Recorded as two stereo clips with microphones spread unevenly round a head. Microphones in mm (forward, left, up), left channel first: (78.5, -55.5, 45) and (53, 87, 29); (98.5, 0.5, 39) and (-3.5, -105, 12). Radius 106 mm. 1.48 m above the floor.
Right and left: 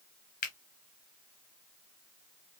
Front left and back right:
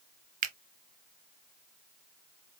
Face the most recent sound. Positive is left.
turn(degrees=-110)